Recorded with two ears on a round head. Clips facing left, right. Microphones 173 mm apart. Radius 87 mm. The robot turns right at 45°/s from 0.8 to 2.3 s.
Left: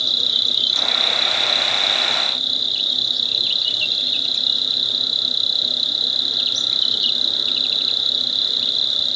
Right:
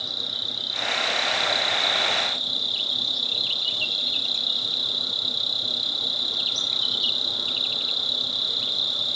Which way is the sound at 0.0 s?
80° left.